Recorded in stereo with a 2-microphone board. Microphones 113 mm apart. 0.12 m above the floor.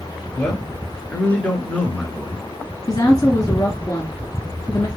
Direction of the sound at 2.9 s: 30° left (ahead or behind).